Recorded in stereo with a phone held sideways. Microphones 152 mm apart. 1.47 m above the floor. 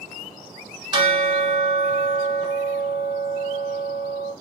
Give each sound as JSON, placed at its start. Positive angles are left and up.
{"t": 0.9, "sound": "a bell", "side_deg": -30, "distance_m": 1.7}